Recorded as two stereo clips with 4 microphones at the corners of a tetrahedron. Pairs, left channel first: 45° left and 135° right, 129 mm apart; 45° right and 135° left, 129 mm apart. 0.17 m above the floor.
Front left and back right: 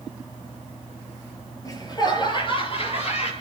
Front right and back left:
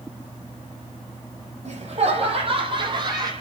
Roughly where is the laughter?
Left.